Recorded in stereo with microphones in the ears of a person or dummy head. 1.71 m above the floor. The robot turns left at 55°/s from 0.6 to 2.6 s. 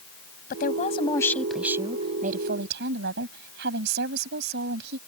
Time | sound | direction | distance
0.5 | a woman speaking | 50° left | ?